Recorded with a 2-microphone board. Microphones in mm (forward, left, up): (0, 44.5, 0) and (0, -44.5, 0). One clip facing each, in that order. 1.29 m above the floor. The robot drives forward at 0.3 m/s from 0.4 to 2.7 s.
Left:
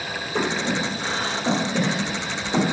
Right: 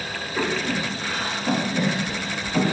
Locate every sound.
0.3 s breathing: 80° left, 2 m; by 2.7 s 75° left (ahead or behind), 2 m